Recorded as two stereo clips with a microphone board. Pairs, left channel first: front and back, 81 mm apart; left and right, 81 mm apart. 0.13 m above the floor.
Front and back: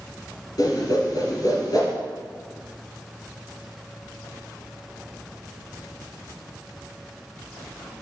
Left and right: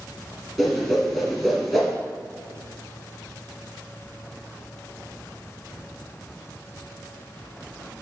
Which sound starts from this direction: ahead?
A whoosh, at 0.6 s.